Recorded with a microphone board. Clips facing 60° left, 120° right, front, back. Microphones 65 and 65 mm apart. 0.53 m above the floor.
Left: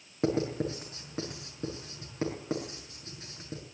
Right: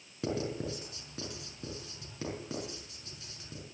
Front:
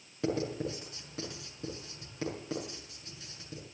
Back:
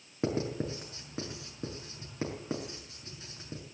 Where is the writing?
120° left, 5.5 m.